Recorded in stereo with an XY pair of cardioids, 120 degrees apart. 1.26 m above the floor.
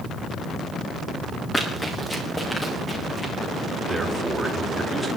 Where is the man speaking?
10° right, 5.5 m.